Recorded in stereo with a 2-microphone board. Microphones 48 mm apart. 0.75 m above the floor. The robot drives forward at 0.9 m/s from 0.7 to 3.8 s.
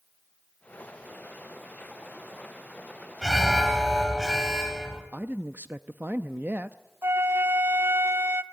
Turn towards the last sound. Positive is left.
turn(degrees=-55)  # may be behind; listen again after turning